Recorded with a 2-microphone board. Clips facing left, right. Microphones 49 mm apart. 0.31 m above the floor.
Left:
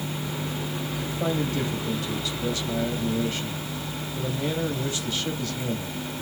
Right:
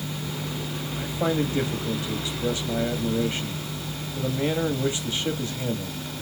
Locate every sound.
1.0 s a man speaking: 25° right (ahead or behind), 1.4 m